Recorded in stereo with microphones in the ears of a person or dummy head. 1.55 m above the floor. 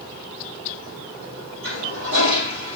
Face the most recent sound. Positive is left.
turn(degrees=-65)  # may be behind; listen again after turning